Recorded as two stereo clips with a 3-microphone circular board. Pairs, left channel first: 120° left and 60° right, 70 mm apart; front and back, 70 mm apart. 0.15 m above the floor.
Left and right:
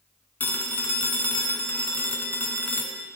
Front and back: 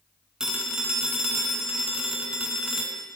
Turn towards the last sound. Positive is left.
turn(degrees=115)